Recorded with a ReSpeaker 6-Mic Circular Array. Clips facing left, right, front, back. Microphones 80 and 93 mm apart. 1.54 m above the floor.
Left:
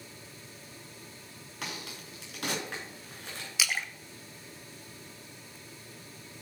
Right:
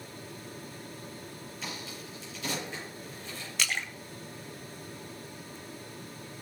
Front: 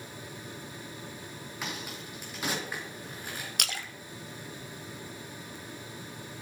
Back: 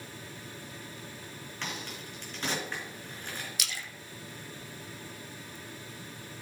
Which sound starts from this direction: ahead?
A splash, at 3.6 s.